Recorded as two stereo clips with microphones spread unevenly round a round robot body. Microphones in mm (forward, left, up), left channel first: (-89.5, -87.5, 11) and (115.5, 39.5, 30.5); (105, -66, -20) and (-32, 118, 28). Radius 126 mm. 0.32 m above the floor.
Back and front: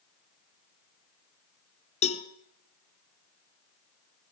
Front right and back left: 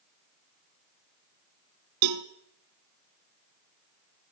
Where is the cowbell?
145° left, 1.2 m.